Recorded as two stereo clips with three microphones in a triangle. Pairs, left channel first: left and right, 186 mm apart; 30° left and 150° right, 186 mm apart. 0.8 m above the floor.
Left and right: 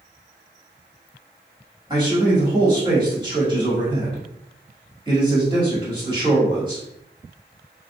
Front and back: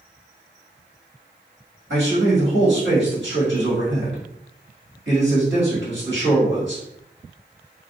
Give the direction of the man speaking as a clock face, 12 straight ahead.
5 o'clock.